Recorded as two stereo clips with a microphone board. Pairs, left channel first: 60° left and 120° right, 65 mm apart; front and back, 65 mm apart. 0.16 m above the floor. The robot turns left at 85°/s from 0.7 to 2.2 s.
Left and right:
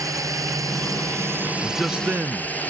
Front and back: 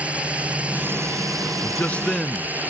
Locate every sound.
0.0 s a drone: 115° right; by 2.7 s 120° left
1.6 s a man speaking: 30° right; by 2.7 s 80° right